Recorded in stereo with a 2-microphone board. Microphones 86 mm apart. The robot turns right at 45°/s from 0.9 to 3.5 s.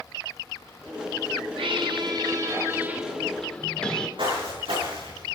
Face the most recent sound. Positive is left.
turn(degrees=-75)  # may be behind; listen again after turning